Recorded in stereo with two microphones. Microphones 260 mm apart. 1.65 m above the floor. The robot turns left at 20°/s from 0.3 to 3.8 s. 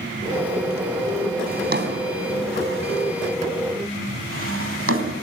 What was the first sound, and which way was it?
A drawer, 35° right (ahead or behind).